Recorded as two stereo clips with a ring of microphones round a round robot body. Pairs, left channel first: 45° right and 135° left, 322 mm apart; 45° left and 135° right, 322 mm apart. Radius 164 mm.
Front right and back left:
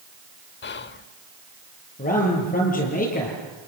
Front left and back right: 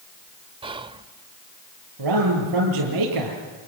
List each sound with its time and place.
0.6 s whispering: 70° right, 0.9 m
2.0 s a man speaking: 110° right, 8 m